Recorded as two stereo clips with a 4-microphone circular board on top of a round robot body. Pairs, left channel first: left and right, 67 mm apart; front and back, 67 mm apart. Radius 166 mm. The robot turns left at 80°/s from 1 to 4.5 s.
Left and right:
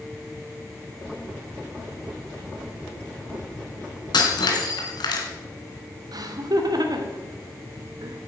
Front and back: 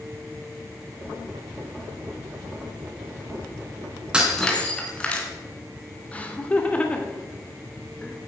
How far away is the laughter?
About 3 m.